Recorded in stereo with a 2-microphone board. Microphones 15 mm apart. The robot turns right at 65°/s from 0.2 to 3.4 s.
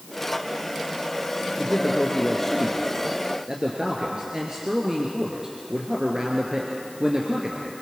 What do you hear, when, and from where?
1.6 s a man speaking: 110° left, 2 m; by 7.7 s 135° right, 2 m